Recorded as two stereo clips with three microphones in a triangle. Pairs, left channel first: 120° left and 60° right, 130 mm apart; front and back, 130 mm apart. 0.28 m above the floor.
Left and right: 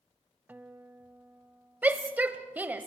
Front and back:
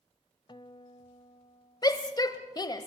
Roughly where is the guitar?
Ahead.